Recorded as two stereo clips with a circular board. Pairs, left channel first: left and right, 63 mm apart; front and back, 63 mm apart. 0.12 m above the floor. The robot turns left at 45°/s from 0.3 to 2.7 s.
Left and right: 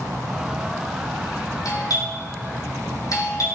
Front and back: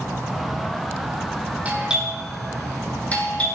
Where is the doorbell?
115° left, 6 m; by 3.5 s 70° left, 6 m.